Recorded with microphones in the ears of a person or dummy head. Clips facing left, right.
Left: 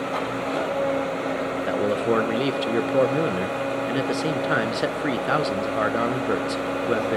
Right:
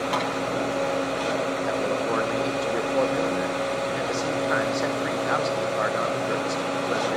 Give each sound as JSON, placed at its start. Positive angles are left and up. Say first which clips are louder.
{"t": 0.1, "sound": "tapping", "louder": "even", "side_deg": -85, "distance_m": 7.5}
{"t": 1.7, "sound": "a man speaking", "louder": "left 7 dB", "side_deg": 35, "distance_m": 0.7}